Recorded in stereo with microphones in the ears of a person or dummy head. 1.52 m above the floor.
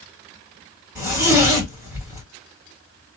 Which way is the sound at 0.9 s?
15° right (ahead or behind).